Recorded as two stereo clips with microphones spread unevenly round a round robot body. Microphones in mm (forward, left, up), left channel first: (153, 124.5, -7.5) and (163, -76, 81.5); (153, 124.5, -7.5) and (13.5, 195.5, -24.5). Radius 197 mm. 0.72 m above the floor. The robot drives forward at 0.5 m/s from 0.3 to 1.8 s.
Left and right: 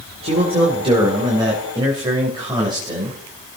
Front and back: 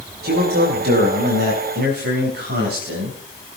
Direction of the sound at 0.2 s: 165° right.